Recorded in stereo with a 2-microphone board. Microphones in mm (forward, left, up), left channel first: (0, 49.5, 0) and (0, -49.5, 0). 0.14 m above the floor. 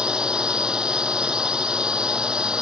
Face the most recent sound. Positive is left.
turn(degrees=-10)  # may be behind; listen again after turning